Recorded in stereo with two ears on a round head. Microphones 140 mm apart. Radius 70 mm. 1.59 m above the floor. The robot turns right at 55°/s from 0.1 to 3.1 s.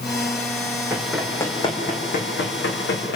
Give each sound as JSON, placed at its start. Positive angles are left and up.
{"t": 0.9, "sound": "running footsteps", "side_deg": -10, "distance_m": 3.5}